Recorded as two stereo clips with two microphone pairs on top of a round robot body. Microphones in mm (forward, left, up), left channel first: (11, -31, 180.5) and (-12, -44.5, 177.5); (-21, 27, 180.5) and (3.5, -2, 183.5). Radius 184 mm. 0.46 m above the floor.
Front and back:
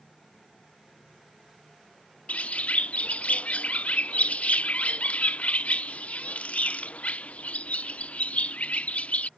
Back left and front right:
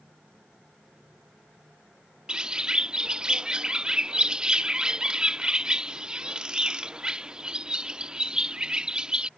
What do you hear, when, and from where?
2.3 s a bird: 20° left